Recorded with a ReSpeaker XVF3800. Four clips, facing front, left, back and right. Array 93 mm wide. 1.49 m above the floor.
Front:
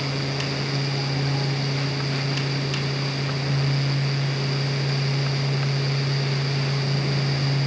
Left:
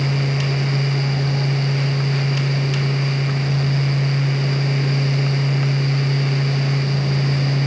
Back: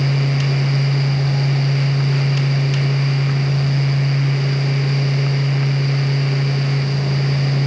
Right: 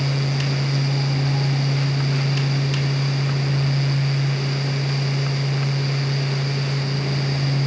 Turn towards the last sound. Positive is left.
No sound to turn to.